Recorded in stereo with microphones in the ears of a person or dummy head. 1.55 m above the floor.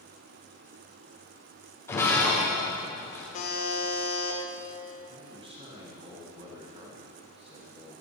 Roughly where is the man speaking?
Right.